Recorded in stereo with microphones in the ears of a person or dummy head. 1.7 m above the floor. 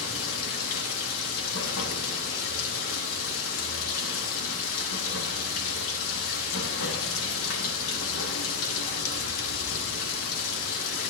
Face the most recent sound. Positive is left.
turn(degrees=80)